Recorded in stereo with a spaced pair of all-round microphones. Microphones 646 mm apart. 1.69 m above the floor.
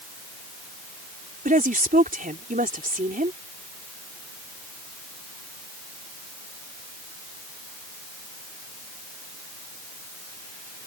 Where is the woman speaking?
10° right (ahead or behind).